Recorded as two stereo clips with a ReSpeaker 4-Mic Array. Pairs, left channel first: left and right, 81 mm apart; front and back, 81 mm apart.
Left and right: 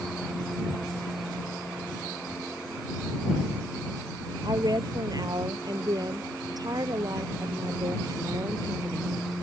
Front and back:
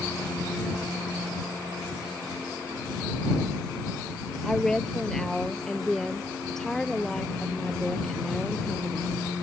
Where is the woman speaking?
80° right.